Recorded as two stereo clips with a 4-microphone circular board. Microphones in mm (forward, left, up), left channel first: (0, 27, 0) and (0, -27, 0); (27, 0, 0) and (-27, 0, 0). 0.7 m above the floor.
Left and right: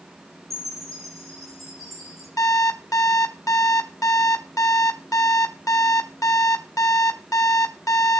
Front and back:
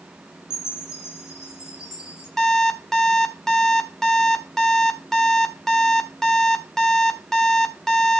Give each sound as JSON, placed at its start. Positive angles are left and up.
{"t": 0.5, "sound": "a chime", "azimuth_deg": -105, "distance_m": 6.5}
{"t": 2.4, "sound": "an alarm clock", "azimuth_deg": 80, "distance_m": 1.3}